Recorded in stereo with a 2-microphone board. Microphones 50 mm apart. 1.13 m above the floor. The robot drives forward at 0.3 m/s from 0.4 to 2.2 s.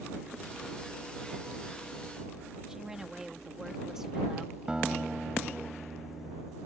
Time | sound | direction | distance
2.7 | a woman speaking | 10° right (ahead or behind) | ?
4.7 | a guitar | 20° right (ahead or behind) | ?